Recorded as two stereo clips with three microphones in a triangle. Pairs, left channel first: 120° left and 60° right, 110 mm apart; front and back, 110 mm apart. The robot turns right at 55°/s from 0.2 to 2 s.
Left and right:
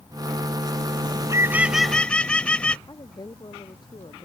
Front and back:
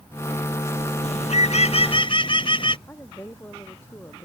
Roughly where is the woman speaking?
Left.